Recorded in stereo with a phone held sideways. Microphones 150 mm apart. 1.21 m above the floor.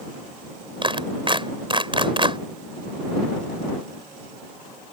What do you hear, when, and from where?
0.8 s a clap: 35° right (ahead or behind)